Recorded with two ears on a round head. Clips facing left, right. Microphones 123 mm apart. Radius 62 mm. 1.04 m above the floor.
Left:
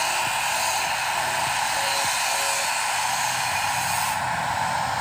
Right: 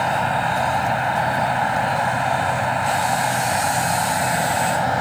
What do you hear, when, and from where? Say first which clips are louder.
0.0 s an insect: right 6 dB; 60° right (ahead or behind)